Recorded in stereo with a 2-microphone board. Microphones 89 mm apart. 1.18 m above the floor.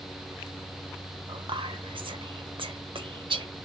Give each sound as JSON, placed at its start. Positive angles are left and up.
{"t": 1.3, "sound": "whispering", "side_deg": -75, "distance_m": 0.8}